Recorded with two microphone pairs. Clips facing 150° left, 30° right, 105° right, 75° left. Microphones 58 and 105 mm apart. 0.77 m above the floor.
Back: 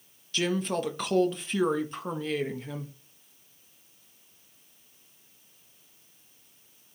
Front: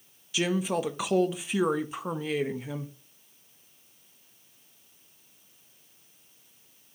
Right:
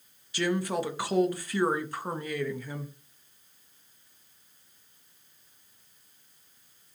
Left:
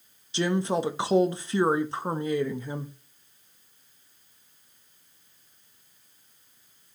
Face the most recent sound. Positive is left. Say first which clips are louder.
# front 1 dB, left 3 dB
turn(degrees=40)